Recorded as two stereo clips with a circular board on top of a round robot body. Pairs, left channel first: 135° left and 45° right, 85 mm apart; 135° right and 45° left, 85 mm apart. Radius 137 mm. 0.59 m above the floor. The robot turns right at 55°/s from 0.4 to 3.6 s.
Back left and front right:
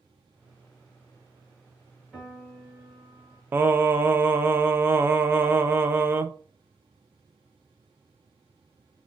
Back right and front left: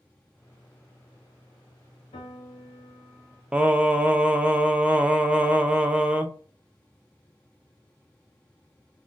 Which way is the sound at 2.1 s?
130° right.